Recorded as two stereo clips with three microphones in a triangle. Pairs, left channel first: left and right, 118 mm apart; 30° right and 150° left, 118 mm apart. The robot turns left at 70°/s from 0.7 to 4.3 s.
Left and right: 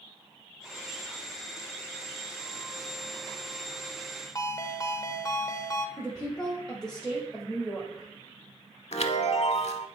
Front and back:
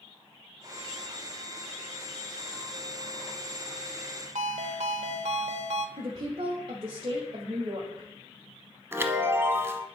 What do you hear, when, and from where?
4.3 s a ringtone: 150° left, 0.6 m
6.0 s a woman speaking: 175° left, 1.5 m
8.9 s a chime: 85° left, 0.6 m